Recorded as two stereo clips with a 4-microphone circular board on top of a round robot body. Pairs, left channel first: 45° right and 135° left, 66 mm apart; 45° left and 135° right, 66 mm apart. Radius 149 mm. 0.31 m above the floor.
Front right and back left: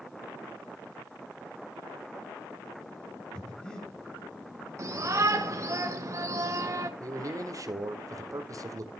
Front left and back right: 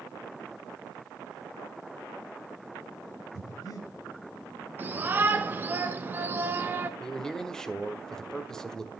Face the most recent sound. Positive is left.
turn(degrees=125)